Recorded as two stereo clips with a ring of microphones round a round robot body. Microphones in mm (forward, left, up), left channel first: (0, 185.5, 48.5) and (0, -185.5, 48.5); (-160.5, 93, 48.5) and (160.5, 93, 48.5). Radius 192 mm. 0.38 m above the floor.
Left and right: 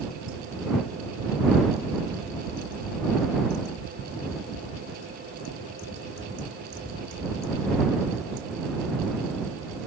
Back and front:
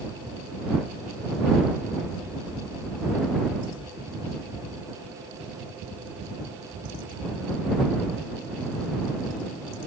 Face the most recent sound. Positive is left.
No sound to turn to.